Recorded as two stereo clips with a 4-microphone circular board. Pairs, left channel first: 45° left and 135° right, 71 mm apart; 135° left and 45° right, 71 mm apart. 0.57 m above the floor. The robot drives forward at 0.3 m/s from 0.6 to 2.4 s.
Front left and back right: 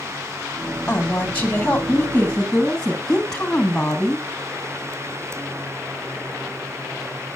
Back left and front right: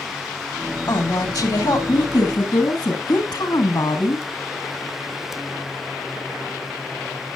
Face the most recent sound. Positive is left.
turn(degrees=120)